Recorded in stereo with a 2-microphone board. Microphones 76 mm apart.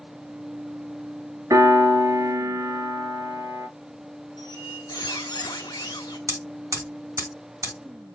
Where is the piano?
55° right (ahead or behind), 1.7 m.